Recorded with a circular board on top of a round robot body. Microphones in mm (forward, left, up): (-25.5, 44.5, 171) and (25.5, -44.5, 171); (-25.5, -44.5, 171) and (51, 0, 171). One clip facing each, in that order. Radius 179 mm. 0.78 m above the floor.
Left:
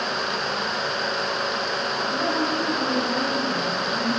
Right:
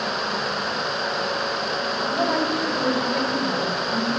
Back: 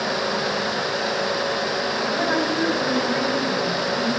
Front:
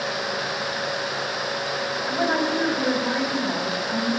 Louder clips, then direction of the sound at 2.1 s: Right 3 dB, front 1 dB; 40° right.